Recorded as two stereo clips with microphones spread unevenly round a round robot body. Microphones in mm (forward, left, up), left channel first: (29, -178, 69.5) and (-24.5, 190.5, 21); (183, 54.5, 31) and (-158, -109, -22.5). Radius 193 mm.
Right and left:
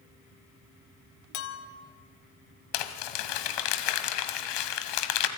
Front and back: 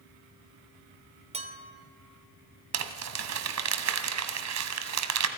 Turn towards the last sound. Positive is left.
turn(degrees=-105)